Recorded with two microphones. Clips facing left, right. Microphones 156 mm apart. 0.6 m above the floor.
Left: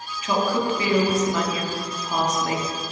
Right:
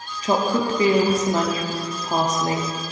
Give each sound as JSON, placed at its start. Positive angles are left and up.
{"t": 0.2, "sound": "a woman speaking", "side_deg": -40, "distance_m": 0.7}